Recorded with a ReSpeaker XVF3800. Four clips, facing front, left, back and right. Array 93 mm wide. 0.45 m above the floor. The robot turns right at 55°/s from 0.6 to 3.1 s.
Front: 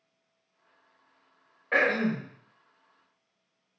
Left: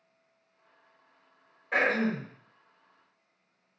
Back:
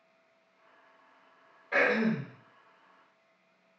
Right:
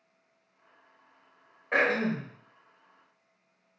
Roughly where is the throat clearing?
Ahead right.